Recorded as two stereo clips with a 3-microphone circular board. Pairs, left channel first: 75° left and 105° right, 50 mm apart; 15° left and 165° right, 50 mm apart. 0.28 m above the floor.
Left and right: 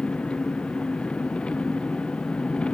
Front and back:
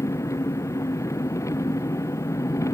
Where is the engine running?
5° left.